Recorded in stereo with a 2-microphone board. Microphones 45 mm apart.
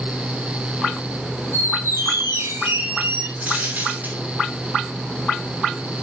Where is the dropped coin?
40° right (ahead or behind), 5.5 m.